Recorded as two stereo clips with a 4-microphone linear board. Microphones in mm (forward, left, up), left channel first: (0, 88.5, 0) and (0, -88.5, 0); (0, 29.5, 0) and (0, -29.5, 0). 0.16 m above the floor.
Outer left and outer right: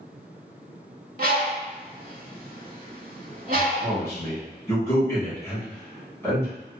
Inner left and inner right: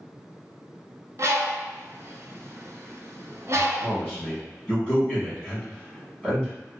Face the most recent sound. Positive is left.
turn(degrees=15)  # may be behind; listen again after turning